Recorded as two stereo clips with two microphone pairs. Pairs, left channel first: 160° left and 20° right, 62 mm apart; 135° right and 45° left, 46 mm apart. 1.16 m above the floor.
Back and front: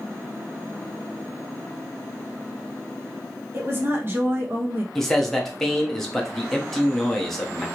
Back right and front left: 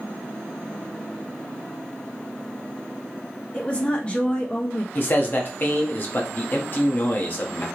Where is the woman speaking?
70° right, 0.8 m.